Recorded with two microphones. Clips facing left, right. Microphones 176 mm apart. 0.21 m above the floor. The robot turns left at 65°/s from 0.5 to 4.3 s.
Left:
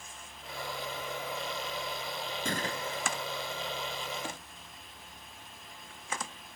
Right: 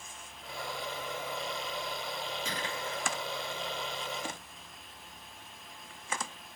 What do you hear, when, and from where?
2.5 s a gunshot: 65° left; by 3.1 s 20° left